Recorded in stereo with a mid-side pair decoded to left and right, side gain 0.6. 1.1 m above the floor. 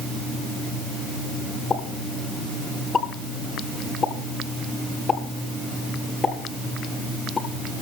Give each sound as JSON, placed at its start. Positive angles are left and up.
{"t": 1.7, "sound": "a pop", "azimuth_deg": 35, "distance_m": 8.0}